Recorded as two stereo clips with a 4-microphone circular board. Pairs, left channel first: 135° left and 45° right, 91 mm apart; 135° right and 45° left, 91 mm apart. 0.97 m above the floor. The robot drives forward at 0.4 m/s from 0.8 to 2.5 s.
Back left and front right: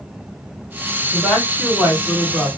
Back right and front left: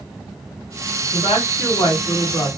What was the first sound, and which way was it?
A woman speaking, 135° right.